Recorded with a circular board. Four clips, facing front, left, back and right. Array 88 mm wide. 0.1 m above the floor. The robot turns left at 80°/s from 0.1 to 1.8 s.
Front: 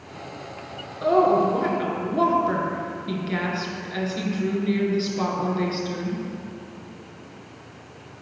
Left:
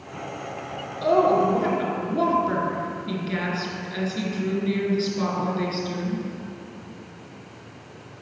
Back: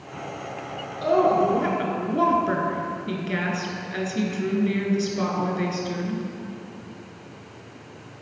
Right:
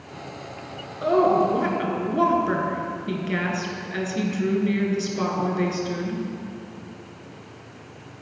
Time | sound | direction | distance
1.0 | a woman speaking | 65° right | 1.4 m